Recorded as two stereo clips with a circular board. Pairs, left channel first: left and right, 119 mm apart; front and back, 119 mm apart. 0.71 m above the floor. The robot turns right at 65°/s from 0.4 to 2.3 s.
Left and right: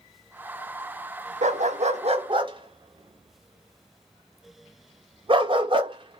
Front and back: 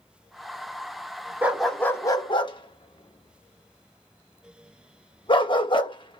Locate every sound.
1.4 s a dog barking: 105° right, 0.5 m; by 6.2 s 45° right, 0.5 m